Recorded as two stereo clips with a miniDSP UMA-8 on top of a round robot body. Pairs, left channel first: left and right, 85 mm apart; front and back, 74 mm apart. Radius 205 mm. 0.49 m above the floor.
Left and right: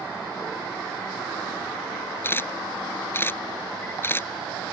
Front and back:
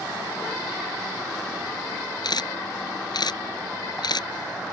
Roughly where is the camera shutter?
Ahead left.